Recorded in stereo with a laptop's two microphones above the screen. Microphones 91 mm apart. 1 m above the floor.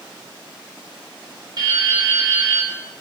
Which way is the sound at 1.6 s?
50° right (ahead or behind).